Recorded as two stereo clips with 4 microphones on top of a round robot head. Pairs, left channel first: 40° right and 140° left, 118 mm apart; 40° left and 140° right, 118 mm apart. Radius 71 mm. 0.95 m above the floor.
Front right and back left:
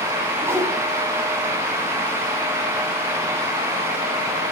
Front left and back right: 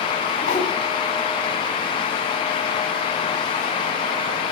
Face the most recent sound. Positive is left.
turn(degrees=70)